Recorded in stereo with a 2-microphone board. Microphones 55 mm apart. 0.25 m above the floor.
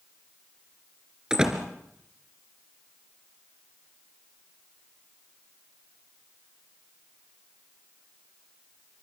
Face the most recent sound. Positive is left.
turn(degrees=-15)  # may be behind; listen again after turning